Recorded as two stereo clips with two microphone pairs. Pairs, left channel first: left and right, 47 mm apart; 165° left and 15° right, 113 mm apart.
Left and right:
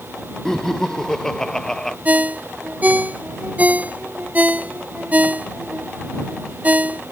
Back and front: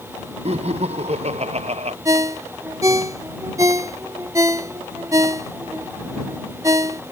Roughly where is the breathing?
I don't hear breathing.